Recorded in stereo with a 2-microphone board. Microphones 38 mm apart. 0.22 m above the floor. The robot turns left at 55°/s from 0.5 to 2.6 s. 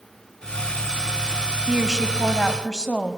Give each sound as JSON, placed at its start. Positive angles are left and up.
{"t": 1.7, "sound": "a woman speaking", "side_deg": 0, "distance_m": 1.1}